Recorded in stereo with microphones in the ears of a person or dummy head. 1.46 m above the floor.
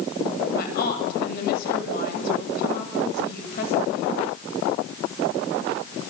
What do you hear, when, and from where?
0.5 s a woman speaking: 55° left (ahead or behind), 7 m